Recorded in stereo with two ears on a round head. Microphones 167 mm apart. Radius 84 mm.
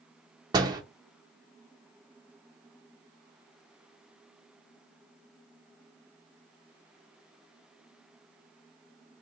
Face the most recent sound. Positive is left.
turn(degrees=-20)  # may be behind; listen again after turning